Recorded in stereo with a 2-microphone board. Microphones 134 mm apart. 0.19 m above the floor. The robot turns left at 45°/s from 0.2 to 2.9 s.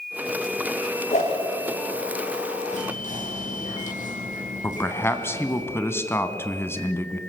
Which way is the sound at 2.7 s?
65° left (ahead or behind).